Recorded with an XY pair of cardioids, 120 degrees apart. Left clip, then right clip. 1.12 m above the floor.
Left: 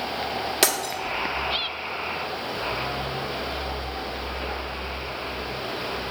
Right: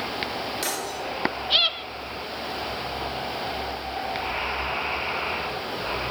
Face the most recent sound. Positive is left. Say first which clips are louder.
# left 6 dB
turn(degrees=70)